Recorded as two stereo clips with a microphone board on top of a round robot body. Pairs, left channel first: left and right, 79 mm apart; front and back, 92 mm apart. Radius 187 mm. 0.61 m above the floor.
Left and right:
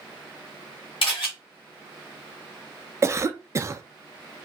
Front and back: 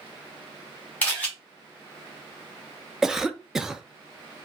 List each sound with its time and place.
1.0 s a camera shutter: 75° left, 1.1 m
3.0 s a cough: 100° right, 0.6 m